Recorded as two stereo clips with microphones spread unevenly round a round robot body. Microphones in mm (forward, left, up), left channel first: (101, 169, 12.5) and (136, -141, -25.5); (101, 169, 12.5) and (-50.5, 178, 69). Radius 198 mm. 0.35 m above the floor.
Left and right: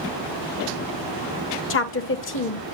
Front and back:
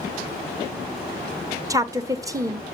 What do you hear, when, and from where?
1.7 s a woman speaking: 90° left, 0.9 m